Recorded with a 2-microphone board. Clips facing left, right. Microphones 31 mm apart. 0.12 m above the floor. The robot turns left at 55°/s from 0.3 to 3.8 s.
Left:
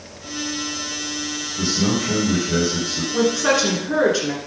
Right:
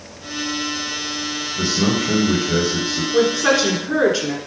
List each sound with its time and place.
1.6 s a man speaking: 110° right, 2.5 m; by 3.0 s 170° left, 2.5 m
3.1 s a woman speaking: 25° right (ahead or behind), 1.3 m; by 4.4 s 10° right (ahead or behind), 1.3 m